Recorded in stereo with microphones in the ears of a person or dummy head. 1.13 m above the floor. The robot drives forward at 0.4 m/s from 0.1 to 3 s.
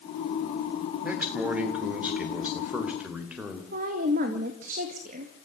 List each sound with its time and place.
1.0 s a man speaking: 10° right (ahead or behind), 3 m; by 3.6 s 5° right (ahead or behind), 3.5 m
3.7 s a woman speaking: 50° right (ahead or behind), 1.8 m